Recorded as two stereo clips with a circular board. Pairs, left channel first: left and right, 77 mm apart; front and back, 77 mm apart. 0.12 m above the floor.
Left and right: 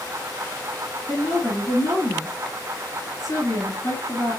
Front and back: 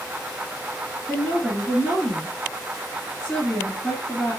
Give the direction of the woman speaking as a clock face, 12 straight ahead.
10 o'clock.